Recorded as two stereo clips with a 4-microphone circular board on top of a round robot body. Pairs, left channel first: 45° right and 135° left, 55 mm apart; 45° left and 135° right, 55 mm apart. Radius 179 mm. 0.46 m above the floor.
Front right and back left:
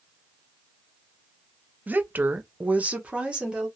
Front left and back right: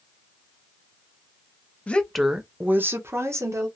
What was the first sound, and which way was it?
A woman speaking, 95° left.